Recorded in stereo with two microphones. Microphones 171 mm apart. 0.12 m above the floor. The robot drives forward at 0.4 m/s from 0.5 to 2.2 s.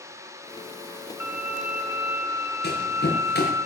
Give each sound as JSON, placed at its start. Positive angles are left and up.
{"t": 1.2, "sound": "a violin", "side_deg": -10, "distance_m": 2.5}
{"t": 2.6, "sound": "running footsteps", "side_deg": 85, "distance_m": 6.5}